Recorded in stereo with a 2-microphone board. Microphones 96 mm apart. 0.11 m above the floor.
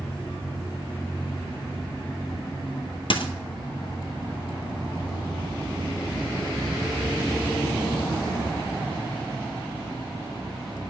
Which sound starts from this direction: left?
A dropped coin, at 3.1 s.